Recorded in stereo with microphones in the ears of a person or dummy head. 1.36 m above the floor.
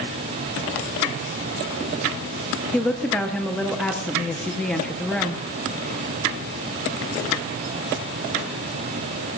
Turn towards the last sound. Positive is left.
turn(degrees=5)  # may be behind; listen again after turning